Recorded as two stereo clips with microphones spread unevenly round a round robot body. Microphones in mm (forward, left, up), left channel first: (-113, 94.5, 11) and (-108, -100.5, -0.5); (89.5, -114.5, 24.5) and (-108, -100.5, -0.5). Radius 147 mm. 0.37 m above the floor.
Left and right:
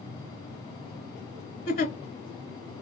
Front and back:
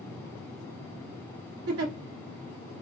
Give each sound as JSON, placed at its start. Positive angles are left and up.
{"t": 1.7, "sound": "a giggle", "azimuth_deg": 135, "distance_m": 0.8}